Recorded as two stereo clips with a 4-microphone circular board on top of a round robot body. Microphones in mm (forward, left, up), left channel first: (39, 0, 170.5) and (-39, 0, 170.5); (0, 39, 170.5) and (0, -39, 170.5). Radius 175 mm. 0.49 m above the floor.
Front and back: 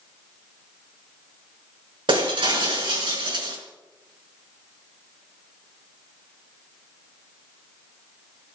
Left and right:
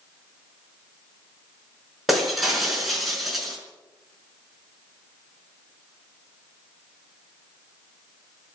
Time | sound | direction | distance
2.1 | breaking glass | straight behind | 5 m